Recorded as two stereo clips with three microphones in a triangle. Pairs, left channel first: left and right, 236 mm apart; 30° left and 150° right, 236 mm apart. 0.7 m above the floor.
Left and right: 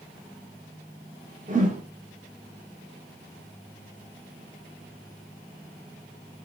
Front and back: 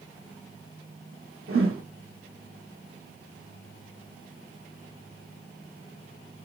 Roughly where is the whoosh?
Behind right.